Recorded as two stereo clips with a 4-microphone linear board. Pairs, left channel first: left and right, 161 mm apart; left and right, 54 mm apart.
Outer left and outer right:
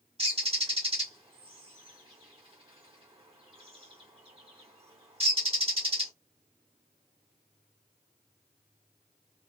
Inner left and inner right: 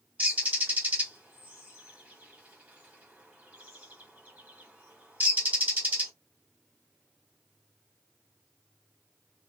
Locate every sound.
0.2 s a bird: 35° right (ahead or behind), 1.5 m